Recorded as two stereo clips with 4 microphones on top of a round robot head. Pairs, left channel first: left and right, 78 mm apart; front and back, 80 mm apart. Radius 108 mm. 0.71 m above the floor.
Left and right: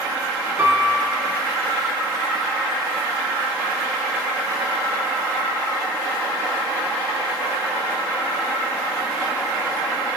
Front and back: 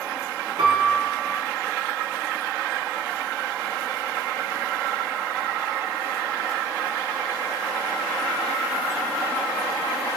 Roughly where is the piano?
Behind right.